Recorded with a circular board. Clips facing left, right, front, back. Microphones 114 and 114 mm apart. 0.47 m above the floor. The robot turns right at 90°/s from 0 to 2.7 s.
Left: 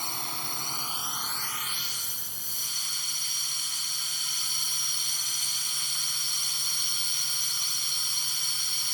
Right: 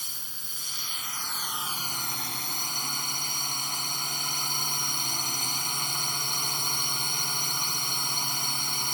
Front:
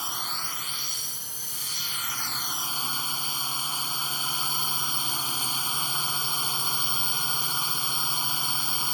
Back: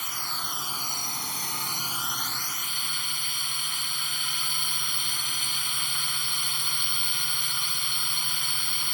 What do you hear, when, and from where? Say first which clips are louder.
0.0 s a drone: left 12 dB, front 1 dB; 60° left; by 8.9 s 55° right